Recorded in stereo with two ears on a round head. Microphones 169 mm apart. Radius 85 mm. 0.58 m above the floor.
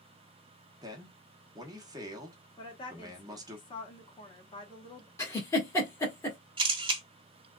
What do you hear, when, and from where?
0.8 s a man speaking: 20° right (ahead or behind), 0.9 m
2.6 s a woman speaking: 25° left (ahead or behind), 1.0 m
5.2 s a giggle: 15° left (ahead or behind), 1.5 m
6.6 s a camera shutter: 25° right (ahead or behind), 1.0 m